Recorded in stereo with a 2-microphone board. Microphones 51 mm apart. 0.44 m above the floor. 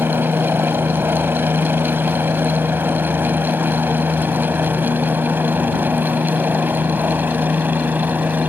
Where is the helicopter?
50° right (ahead or behind); by 8.5 s 40° right (ahead or behind).